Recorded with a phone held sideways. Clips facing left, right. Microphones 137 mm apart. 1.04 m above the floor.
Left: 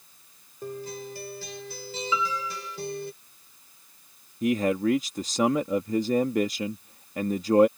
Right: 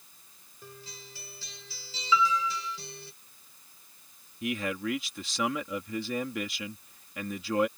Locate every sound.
0.6 s a guitar: 55° left (ahead or behind)
2.1 s a piano: 30° left (ahead or behind)
4.4 s a man speaking: 40° left (ahead or behind)